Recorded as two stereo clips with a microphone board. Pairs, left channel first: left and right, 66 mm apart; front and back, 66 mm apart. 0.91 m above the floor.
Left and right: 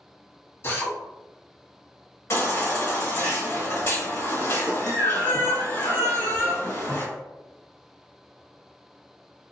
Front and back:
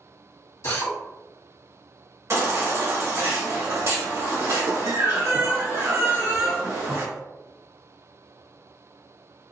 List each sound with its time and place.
0.6 s a drill: 40° left, 1.5 m
2.3 s a baby crying: 135° left, 1.2 m